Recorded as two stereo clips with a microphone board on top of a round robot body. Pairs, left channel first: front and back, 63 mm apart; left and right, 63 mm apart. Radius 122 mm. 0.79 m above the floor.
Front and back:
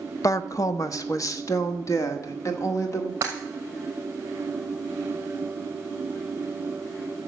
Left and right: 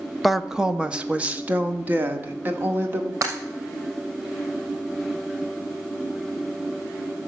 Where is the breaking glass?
130° right, 2.5 m.